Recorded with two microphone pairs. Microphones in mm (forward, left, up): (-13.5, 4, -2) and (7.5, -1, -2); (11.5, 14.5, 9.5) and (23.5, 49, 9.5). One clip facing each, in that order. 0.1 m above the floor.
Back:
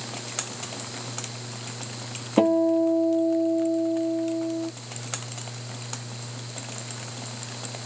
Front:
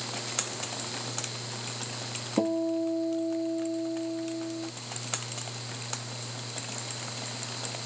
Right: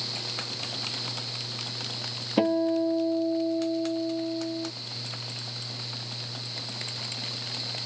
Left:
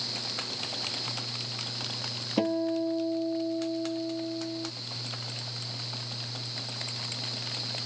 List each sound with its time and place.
2.4 s a guitar: straight behind